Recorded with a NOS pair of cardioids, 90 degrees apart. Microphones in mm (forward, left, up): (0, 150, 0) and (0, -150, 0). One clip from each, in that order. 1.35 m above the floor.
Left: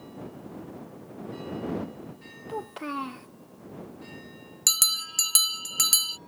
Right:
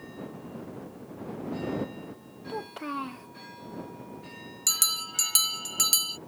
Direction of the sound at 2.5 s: 15° left.